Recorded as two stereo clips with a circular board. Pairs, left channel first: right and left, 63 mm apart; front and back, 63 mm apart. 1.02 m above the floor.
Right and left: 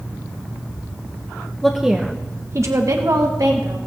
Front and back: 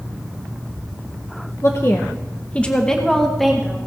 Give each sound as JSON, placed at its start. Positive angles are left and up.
{"t": 1.6, "sound": "a woman speaking", "azimuth_deg": -10, "distance_m": 1.0}